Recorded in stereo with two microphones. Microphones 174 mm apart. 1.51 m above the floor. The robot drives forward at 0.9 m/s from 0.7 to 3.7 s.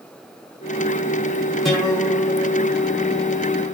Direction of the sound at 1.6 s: Centre (ahead or behind).